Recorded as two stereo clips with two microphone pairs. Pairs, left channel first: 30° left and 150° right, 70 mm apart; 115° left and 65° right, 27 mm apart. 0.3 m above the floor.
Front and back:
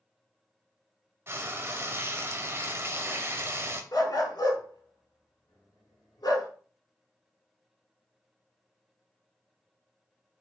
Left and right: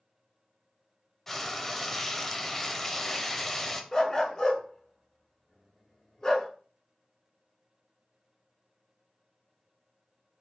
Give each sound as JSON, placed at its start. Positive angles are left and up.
{"t": 1.3, "sound": "frying", "azimuth_deg": -175, "distance_m": 0.5}
{"t": 3.9, "sound": "a dog barking", "azimuth_deg": 45, "distance_m": 0.9}